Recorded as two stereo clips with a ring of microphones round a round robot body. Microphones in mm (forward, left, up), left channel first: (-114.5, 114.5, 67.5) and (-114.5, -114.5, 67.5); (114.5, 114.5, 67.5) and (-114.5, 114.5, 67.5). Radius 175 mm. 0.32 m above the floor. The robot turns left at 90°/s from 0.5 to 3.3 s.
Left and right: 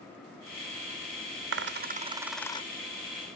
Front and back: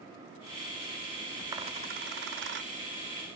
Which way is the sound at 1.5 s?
105° right.